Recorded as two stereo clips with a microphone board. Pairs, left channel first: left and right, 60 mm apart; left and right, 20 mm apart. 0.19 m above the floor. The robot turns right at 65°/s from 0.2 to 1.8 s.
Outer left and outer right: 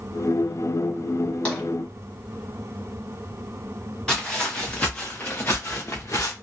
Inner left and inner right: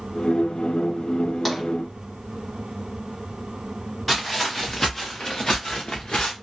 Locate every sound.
1.4 s tapping: 20° left (ahead or behind), 1.5 m
4.1 s footsteps: 10° left (ahead or behind), 1.7 m; by 6.3 s 55° left (ahead or behind), 1.3 m